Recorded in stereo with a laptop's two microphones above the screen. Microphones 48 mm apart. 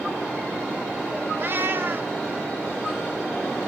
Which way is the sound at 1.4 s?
50° right (ahead or behind).